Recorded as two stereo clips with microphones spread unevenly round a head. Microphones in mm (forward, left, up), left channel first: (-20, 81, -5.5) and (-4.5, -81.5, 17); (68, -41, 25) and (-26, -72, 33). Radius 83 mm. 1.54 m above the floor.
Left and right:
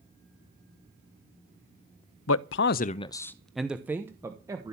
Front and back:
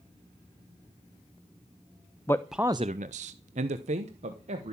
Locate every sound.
2.3 s a man speaking: 95° left, 0.6 m; by 4.8 s 155° right, 1.6 m